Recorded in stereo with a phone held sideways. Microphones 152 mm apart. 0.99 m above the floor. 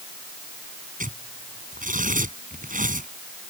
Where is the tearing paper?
55° right (ahead or behind).